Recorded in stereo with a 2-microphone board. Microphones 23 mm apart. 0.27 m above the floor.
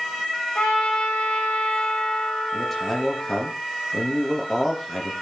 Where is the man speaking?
15° left (ahead or behind), 6.5 m.